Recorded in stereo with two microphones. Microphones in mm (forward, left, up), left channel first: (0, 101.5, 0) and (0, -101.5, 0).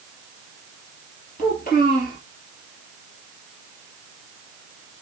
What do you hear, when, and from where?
1.4 s a child speaking: 45° left (ahead or behind), 2.5 m